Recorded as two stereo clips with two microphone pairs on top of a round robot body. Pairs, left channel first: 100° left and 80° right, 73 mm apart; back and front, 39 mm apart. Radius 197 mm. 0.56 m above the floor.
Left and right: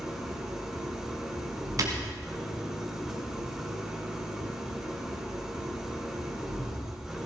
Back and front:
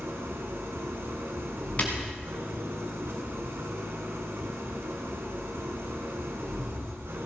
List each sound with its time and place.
0.0 s an engine running: 5° left, 2 m
1.8 s breaking glass: 125° right, 1.0 m